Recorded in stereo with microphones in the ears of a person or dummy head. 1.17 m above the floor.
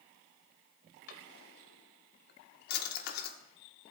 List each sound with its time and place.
1.1 s a drawer: 60° left (ahead or behind), 1.3 m